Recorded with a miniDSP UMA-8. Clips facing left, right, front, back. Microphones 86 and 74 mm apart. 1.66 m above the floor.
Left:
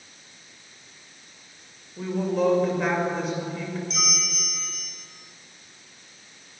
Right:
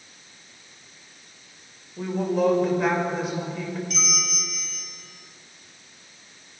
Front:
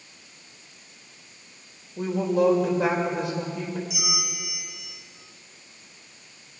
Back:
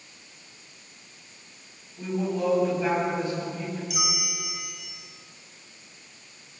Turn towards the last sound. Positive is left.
turn(degrees=155)